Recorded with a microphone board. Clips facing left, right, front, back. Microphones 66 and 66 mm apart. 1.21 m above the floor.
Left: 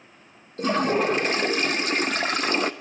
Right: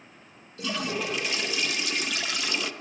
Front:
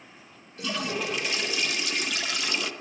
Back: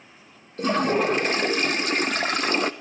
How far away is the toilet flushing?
About 0.8 m.